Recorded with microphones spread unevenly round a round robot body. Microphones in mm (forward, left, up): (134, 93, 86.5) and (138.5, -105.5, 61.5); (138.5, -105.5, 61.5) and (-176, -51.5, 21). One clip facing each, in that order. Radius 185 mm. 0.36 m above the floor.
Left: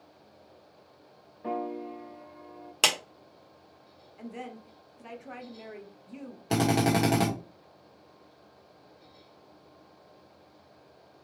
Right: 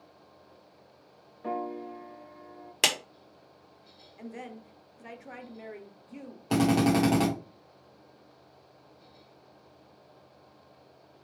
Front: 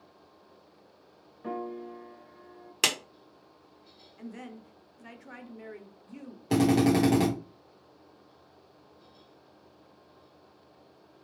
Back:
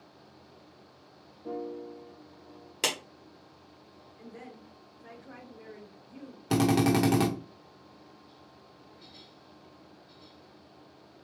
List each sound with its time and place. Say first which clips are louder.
1.4 s a piano: left 1 dB, even; 5° right, 0.7 m
2.8 s a clap: even, even; 55° right, 1.2 m
4.2 s a woman speaking: left 1 dB, front 5 dB; 15° right, 1.2 m
6.5 s a drill: right 2 dB, front 2 dB; 170° left, 1.5 m